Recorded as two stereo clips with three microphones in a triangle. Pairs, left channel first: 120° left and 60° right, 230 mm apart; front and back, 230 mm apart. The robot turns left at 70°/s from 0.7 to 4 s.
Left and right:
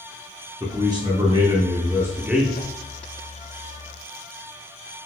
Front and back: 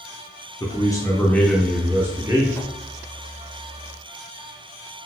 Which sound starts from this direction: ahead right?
A man speaking, at 0.6 s.